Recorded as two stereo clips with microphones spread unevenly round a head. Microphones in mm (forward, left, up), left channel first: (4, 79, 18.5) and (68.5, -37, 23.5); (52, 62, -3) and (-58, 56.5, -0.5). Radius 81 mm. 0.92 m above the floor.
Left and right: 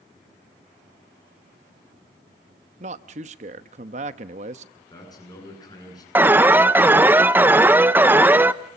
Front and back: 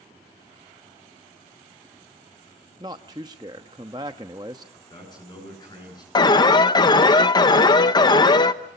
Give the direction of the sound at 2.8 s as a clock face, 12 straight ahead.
4 o'clock.